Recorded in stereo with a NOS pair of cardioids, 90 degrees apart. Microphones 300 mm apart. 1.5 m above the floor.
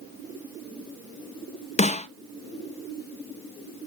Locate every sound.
1.8 s a snare drum: 25° left, 0.5 m